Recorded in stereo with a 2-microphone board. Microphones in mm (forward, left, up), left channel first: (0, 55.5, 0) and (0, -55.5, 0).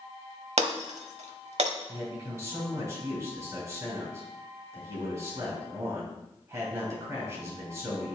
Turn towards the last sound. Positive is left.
turn(degrees=-30)  # may be behind; listen again after turning